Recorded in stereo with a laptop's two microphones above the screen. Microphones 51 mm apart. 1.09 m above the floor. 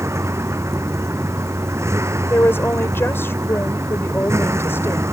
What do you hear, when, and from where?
0.0 s a vehicle: 60° right (ahead or behind)
2.3 s a woman speaking: 50° left (ahead or behind)